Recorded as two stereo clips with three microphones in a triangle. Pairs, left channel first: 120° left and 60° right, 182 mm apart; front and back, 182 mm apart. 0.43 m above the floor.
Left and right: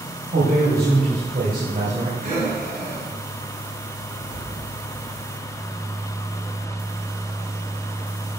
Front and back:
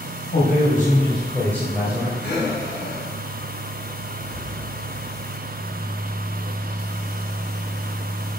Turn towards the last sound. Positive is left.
turn(degrees=-20)